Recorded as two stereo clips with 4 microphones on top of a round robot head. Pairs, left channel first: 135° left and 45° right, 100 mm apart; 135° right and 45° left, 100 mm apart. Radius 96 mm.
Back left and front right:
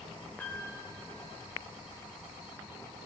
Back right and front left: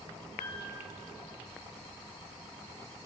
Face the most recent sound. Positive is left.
turn(degrees=-150)